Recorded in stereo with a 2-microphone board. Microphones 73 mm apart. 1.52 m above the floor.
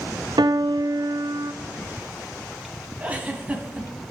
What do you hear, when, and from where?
0.4 s a piano: 65° right (ahead or behind), 0.6 m
3.0 s a giggle: 20° right (ahead or behind), 1.6 m